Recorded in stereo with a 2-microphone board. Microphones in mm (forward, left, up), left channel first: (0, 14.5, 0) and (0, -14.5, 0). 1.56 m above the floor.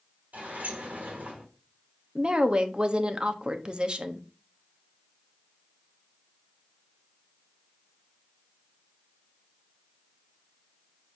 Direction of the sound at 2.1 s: 35° right (ahead or behind).